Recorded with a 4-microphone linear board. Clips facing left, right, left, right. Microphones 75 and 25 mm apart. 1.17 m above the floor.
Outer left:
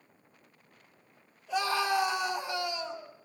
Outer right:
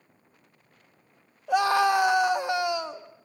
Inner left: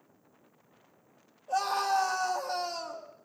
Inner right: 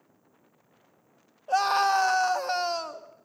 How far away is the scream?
About 1.5 m.